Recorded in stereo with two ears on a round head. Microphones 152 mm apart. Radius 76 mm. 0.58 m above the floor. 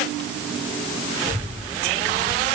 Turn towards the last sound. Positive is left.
turn(degrees=-45)  # may be behind; listen again after turning